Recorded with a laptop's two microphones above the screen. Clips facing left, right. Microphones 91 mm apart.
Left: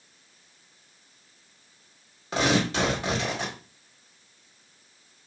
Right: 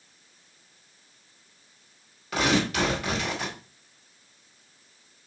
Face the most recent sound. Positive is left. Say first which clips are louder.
# even
turn(degrees=25)  # may be behind; listen again after turning